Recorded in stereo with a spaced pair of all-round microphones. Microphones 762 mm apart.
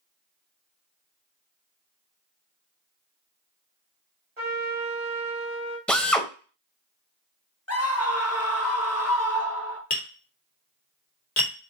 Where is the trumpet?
55° right (ahead or behind), 2 m.